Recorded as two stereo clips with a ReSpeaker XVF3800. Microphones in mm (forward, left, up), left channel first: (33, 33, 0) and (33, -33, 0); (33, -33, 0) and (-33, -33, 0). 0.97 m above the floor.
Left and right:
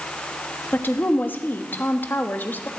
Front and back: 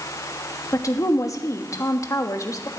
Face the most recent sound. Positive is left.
turn(degrees=30)